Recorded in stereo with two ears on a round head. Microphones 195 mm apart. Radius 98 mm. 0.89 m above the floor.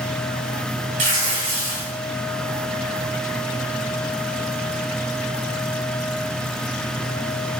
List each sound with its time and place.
1.0 s tearing paper: 35° right (ahead or behind), 5 m